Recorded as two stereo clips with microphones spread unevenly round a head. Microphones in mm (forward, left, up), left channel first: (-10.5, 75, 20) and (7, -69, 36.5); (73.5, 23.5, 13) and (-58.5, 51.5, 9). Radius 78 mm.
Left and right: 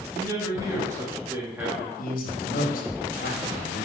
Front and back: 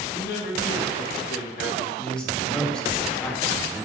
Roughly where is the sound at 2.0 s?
Left.